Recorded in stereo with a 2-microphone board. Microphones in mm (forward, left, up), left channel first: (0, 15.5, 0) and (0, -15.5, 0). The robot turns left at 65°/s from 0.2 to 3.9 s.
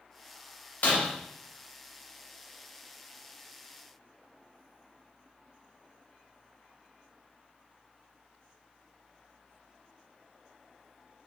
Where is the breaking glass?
65° left (ahead or behind), 1.0 m.